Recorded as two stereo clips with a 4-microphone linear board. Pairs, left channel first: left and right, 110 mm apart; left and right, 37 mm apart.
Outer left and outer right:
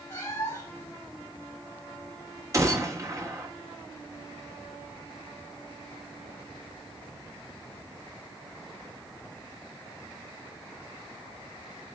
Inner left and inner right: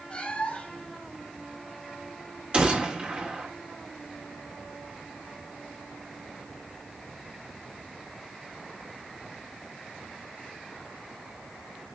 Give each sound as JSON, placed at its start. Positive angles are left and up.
{"t": 0.1, "sound": "a cat meowing", "side_deg": 20, "distance_m": 3.5}
{"t": 2.5, "sound": "a gunshot", "side_deg": -30, "distance_m": 2.5}